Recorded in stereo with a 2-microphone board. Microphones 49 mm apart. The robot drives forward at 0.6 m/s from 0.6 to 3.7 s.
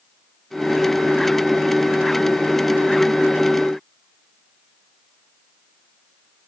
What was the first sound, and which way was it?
Only background noise.